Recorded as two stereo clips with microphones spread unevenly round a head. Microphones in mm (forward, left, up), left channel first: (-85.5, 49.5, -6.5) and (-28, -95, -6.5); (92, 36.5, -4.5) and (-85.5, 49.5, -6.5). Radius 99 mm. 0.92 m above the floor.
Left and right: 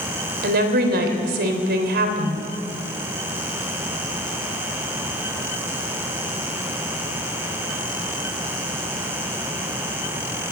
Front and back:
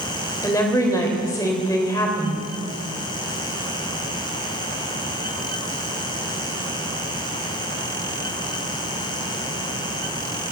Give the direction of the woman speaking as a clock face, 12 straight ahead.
3 o'clock.